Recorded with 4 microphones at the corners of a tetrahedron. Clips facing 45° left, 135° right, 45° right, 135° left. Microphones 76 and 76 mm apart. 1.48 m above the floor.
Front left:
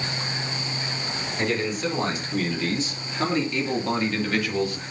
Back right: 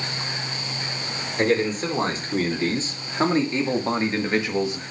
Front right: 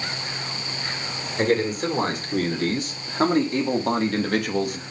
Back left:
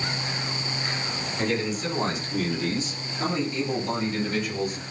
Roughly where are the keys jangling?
No keys jangling in this recording.